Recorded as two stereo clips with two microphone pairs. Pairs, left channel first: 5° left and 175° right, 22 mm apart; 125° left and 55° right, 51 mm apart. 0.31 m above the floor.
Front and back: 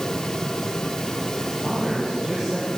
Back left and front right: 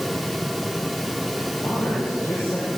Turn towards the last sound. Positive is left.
turn(degrees=135)